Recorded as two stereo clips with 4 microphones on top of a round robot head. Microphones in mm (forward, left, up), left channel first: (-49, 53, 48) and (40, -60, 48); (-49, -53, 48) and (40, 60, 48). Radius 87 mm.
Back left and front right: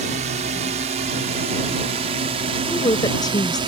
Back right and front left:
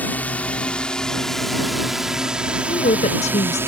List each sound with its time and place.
0.0 s a drone: 50° right; by 3.7 s 15° right
2.7 s a woman speaking: 170° right